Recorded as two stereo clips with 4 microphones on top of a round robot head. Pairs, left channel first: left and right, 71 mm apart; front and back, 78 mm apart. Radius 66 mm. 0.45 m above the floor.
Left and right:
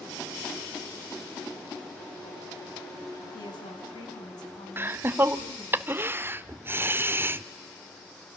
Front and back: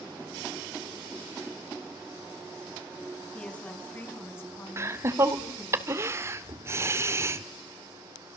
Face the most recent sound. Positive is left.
turn(degrees=-135)